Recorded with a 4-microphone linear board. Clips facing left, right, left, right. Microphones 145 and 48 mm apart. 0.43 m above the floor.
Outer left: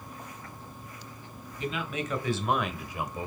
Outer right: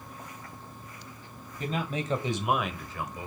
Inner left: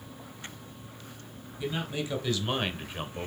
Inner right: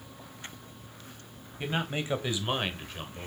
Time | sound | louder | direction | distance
1.6 | a man speaking | outer right 1 dB, inner right 1 dB | 45° right (ahead or behind) | 2 m